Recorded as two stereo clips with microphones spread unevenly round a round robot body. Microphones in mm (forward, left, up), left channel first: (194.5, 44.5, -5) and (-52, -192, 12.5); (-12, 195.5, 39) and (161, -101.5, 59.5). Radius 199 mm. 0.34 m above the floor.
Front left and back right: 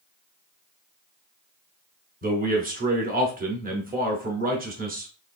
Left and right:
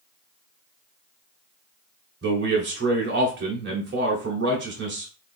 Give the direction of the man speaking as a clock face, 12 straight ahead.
3 o'clock.